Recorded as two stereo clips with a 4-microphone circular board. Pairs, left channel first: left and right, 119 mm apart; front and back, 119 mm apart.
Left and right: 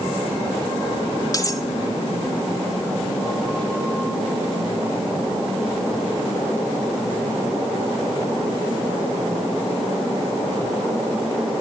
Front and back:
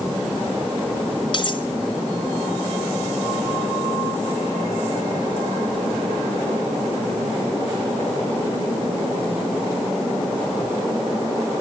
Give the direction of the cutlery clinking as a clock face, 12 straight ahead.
11 o'clock.